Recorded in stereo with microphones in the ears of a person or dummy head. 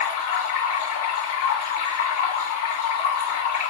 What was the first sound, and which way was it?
Running water, 50° left (ahead or behind).